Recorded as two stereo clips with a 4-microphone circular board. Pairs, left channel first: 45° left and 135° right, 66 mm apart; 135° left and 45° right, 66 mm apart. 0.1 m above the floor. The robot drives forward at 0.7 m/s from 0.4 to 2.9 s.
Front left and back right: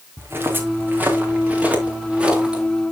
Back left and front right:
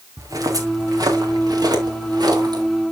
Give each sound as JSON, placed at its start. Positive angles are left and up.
{"t": 0.2, "sound": "footsteps", "azimuth_deg": -80, "distance_m": 3.5}